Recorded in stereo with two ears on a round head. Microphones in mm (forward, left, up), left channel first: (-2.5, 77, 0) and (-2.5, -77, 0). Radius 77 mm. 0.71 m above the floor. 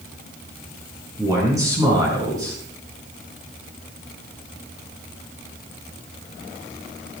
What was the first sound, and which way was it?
A man speaking, 20° right (ahead or behind).